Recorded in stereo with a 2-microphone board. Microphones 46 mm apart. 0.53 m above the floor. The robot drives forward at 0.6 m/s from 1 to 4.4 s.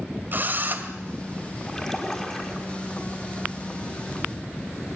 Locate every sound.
0.3 s a drill: 40° right (ahead or behind), 2.5 m
1.7 s a splash: 10° left (ahead or behind), 4 m